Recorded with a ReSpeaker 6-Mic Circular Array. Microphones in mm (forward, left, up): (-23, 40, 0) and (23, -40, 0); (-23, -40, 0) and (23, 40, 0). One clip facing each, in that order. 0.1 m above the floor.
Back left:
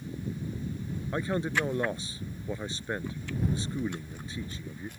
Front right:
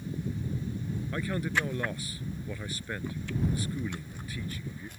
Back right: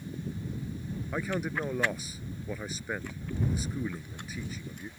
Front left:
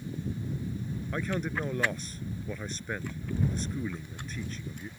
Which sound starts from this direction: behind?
A man speaking, at 1.1 s.